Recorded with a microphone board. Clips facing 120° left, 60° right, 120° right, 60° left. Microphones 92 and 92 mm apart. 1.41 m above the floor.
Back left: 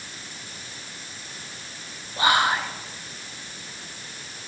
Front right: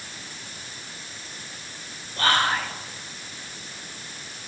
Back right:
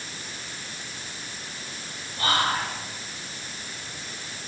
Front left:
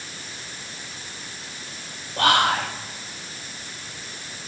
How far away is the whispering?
About 0.8 m.